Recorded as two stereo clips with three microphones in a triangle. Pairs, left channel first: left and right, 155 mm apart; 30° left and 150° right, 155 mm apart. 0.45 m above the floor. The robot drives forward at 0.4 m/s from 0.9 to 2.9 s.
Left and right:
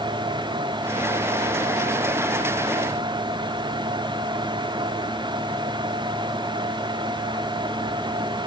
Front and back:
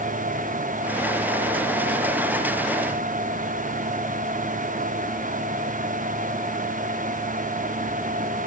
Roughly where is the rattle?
I don't hear a rattle.